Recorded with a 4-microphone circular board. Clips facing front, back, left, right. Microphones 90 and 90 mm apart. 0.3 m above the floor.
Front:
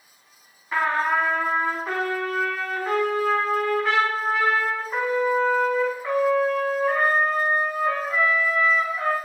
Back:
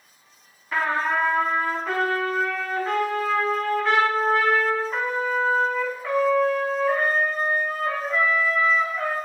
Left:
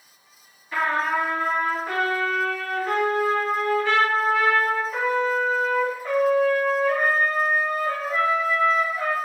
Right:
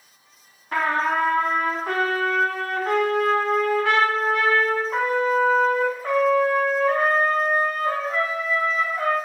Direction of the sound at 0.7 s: 80° right.